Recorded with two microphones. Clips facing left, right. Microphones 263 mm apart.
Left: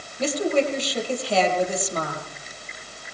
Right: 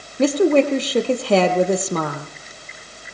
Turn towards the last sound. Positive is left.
turn(degrees=-65)  # may be behind; listen again after turning